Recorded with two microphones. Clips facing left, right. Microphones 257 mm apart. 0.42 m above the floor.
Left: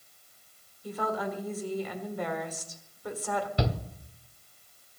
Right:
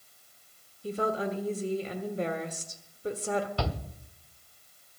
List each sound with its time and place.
0.8 s a woman speaking: 30° right (ahead or behind), 1.3 m
3.6 s a shout: 20° left (ahead or behind), 0.9 m